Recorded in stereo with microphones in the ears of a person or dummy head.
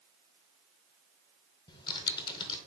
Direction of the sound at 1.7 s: 25° left (ahead or behind).